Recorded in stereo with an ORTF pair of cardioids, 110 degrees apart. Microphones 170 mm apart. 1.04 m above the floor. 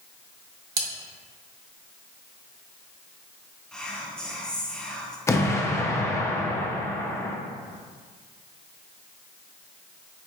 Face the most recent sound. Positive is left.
turn(degrees=15)